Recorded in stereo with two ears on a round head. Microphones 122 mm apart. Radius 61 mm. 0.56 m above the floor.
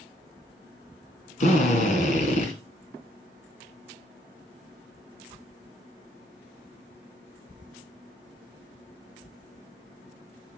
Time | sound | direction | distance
1.4 | a drill | 60° left (ahead or behind) | 2.5 m